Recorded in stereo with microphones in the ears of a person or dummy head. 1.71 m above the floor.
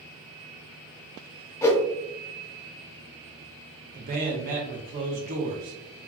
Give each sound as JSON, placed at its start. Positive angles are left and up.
{"t": 1.6, "sound": "a whoosh", "side_deg": 20, "distance_m": 0.5}
{"t": 3.9, "sound": "a man speaking", "side_deg": -45, "distance_m": 0.8}